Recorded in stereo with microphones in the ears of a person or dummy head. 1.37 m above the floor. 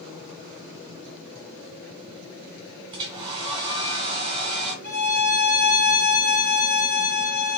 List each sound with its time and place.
2.9 s a hair dryer: 25° right (ahead or behind), 1.7 m
4.8 s a violin: 55° left (ahead or behind), 1.5 m